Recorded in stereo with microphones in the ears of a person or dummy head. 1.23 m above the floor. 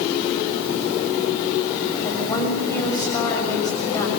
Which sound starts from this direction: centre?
A woman speaking, at 2.0 s.